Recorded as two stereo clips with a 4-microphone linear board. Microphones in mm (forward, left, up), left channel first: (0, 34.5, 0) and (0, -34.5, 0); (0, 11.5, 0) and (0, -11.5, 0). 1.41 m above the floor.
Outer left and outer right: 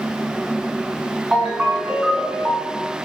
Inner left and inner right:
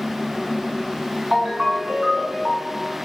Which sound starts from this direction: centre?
A ringtone, at 1.3 s.